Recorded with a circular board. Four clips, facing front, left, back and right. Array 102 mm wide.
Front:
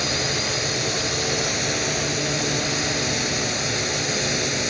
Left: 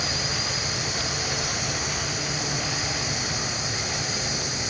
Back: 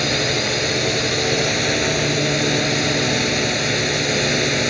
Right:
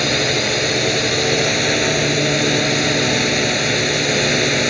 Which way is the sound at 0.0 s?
115° right.